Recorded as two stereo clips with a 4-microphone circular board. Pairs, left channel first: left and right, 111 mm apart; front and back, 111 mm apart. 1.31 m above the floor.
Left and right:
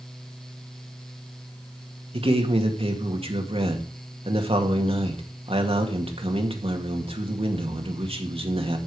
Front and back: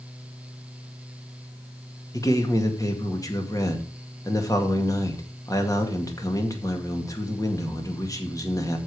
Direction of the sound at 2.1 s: 60° right.